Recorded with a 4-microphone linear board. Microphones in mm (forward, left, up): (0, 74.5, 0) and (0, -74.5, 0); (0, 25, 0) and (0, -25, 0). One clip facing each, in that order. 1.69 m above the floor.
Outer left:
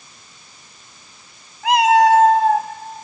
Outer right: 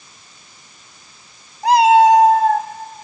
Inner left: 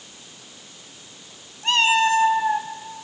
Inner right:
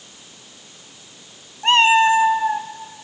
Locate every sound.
1.6 s a cat meowing: 35° right (ahead or behind), 1.3 m; by 2.7 s 15° left (ahead or behind), 1.0 m